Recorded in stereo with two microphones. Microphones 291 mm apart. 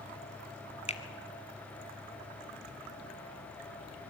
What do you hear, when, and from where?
0.9 s a finger snap: 20° left (ahead or behind), 1.6 m